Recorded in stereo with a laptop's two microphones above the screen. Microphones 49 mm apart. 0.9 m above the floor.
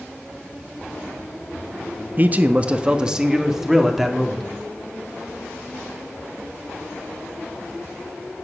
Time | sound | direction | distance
2.2 | a man speaking | 35° right (ahead or behind) | 1.0 m